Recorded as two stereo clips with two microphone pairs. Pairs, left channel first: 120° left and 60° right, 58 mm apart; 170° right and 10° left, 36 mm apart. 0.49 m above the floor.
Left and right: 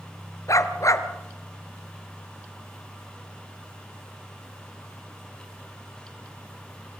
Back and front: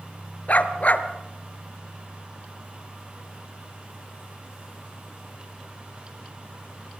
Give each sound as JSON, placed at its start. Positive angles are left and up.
{"t": 0.5, "sound": "a dog barking", "azimuth_deg": 145, "distance_m": 1.8}